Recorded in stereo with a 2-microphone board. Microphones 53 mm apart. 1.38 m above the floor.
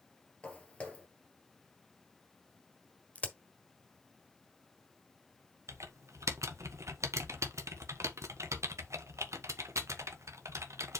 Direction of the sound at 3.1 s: 30° left (ahead or behind).